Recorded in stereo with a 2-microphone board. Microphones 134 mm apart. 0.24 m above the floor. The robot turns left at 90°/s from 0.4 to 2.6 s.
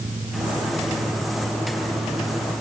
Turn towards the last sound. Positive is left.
No sound to turn to.